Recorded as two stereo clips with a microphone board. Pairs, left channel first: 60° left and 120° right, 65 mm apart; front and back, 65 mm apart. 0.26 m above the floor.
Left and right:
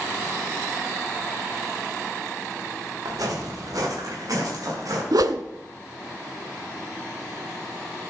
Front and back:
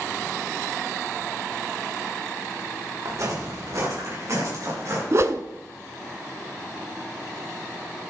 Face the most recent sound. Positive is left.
turn(degrees=-135)